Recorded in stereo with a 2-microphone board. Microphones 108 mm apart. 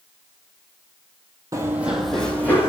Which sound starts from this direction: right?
Running footsteps, at 1.5 s.